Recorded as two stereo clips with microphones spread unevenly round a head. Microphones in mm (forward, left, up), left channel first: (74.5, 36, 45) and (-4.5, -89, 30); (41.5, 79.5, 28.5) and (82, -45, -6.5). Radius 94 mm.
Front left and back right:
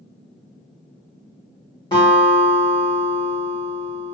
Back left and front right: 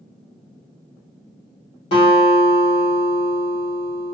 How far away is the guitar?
About 1.3 m.